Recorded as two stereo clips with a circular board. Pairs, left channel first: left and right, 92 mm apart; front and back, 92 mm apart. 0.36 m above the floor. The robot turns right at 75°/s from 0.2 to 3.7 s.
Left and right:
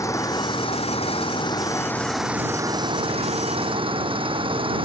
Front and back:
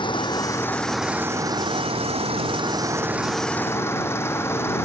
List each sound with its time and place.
0.0 s an engine running: 35° left; by 4.9 s 65° right